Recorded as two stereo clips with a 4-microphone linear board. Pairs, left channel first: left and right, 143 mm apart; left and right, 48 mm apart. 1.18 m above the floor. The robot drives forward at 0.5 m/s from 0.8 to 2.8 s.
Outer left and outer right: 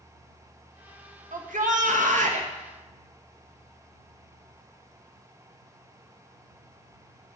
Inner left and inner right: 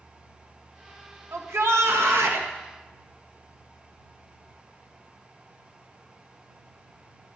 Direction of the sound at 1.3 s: 75° right (ahead or behind).